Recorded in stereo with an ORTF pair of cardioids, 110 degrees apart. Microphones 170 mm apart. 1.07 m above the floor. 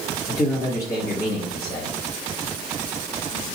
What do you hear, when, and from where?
0.3 s a man speaking: 20° left, 1.2 m